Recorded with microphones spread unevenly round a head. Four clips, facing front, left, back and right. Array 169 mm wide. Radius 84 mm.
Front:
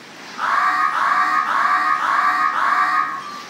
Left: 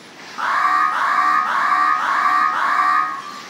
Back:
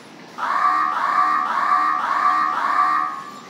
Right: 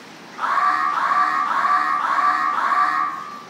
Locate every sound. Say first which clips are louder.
0.4 s an alarm: left 2 dB, front 1 dB; 150° left, 1.0 m